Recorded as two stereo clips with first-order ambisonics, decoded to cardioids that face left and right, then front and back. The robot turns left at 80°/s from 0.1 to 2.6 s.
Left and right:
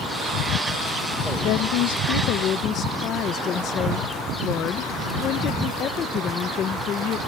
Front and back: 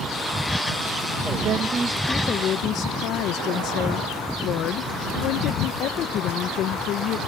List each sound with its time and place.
1.4 s a woman speaking: 130° left; by 7.2 s 40° left